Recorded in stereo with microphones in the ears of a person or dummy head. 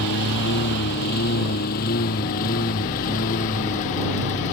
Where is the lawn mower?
60° left (ahead or behind); by 4.5 s 40° left (ahead or behind).